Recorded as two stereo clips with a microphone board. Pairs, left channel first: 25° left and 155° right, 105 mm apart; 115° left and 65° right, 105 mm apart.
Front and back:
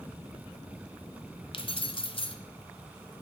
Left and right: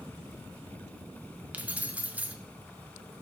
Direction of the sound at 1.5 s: 5° left.